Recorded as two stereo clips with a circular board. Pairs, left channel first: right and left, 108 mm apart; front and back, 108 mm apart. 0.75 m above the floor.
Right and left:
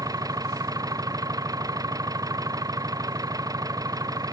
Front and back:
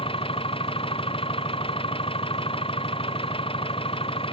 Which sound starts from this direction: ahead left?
An engine running, at 0.0 s.